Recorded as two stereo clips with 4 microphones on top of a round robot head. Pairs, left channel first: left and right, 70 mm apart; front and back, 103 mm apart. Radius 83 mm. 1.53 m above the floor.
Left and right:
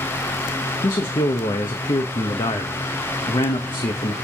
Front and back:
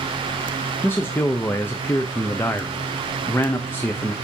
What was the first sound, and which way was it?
A man speaking, 70° left.